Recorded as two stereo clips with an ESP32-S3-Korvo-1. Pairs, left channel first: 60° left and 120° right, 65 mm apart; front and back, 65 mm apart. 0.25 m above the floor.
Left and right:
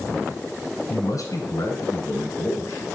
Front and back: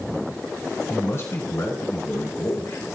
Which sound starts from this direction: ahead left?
A man speaking, at 0.9 s.